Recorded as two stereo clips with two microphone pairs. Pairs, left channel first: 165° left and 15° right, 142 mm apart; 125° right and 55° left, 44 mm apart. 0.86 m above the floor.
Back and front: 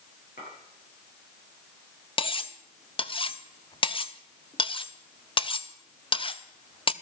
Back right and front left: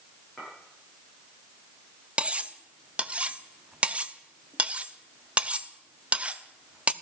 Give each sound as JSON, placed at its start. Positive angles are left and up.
{"t": 0.4, "sound": "a clink", "azimuth_deg": 155, "distance_m": 9.5}
{"t": 2.2, "sound": "cutlery clinking", "azimuth_deg": 115, "distance_m": 0.6}